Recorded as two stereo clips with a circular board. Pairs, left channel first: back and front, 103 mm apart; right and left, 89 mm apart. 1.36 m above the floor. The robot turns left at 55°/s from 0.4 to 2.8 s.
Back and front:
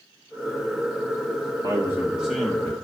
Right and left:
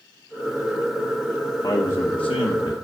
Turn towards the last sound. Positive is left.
turn(degrees=-115)